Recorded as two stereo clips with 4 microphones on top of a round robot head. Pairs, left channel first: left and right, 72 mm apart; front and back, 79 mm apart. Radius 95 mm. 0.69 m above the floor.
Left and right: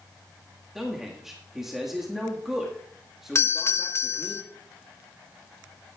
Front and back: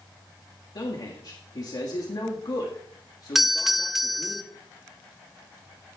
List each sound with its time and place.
0.8 s a man speaking: 5° right, 1.6 m
3.4 s a doorbell: 95° left, 1.2 m